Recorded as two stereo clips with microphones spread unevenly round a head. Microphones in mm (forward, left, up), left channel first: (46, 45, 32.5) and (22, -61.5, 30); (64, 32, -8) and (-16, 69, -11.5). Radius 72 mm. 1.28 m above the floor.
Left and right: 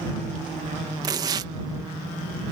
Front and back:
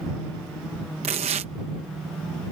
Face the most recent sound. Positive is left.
turn(degrees=-165)